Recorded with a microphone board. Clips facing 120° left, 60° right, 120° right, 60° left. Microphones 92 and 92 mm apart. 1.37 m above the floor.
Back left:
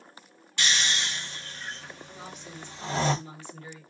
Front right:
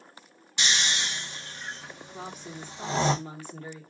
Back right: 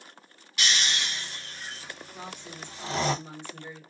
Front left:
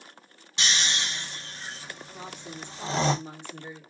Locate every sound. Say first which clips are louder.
0.6 s snoring: even, even; 5° left, 0.7 m
2.1 s a woman speaking: front right 6 dB, front left 1 dB; 15° right, 1.0 m